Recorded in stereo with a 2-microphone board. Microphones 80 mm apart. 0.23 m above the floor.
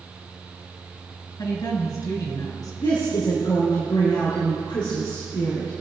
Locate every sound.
1.4 s a woman speaking: 50° left (ahead or behind), 3 m
2.8 s a woman speaking: 65° left (ahead or behind), 3.5 m